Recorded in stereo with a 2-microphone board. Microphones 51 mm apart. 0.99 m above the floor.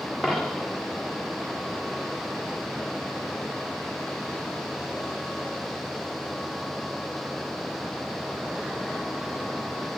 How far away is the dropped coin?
About 1.4 m.